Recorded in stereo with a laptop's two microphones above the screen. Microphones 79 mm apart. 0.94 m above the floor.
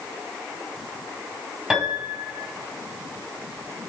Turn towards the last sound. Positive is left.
turn(degrees=-5)  # may be behind; listen again after turning